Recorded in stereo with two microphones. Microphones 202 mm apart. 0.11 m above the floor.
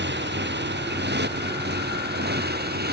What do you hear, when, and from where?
0.0 s a motorcycle: 60° right (ahead or behind); by 2.9 s 55° right (ahead or behind)